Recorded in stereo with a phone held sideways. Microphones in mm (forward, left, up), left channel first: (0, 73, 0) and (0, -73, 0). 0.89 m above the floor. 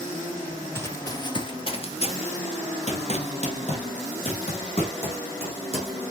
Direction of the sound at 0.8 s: 15° left (ahead or behind).